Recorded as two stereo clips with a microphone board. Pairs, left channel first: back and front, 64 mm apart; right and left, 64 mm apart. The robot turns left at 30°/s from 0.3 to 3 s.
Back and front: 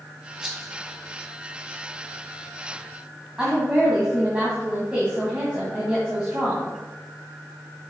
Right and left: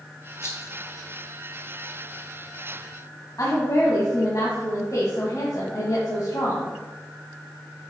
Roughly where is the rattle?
Right.